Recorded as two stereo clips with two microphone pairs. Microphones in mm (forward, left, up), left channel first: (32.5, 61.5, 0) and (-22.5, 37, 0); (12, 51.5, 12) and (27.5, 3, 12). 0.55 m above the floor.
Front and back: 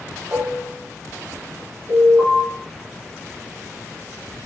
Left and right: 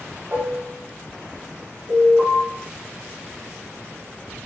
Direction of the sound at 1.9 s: 85° right.